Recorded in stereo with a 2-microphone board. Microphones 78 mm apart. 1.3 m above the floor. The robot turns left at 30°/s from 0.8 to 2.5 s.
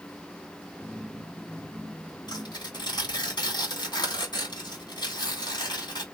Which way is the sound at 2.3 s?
65° left (ahead or behind).